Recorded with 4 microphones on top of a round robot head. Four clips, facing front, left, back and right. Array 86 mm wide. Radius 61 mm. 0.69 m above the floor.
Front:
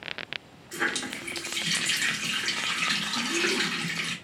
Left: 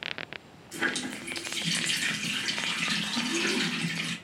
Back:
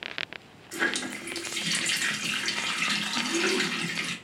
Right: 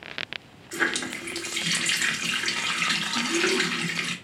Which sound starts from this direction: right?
A running tap, at 0.7 s.